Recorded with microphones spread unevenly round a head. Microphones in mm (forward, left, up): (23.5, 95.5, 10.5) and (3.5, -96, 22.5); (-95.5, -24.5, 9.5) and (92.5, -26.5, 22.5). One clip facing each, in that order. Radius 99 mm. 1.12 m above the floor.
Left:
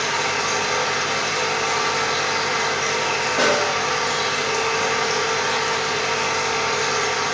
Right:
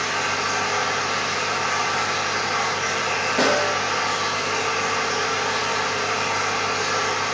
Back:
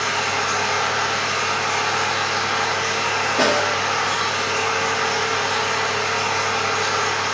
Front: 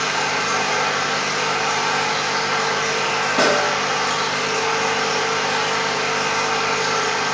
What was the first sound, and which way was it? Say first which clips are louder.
A machine running: left 2 dB, front 1 dB; 50° left.